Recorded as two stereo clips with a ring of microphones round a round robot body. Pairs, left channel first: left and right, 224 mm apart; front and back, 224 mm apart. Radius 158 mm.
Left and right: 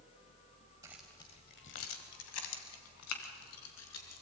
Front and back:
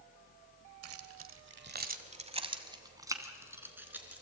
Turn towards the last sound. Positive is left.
turn(degrees=95)